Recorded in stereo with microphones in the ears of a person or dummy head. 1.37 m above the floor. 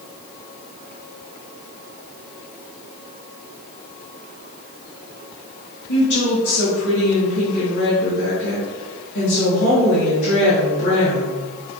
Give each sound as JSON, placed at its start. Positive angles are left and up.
{"t": 5.9, "sound": "a woman speaking", "side_deg": 70, "distance_m": 1.4}